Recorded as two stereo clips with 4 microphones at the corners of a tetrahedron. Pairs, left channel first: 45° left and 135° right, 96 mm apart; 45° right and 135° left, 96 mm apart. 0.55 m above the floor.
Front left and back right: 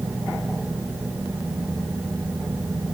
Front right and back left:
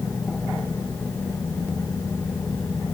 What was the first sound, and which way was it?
Only background noise.